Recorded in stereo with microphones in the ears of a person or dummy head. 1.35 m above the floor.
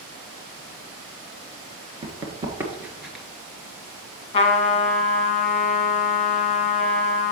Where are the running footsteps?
25° right (ahead or behind), 1.5 m; by 3.2 s centre (ahead or behind), 1.4 m.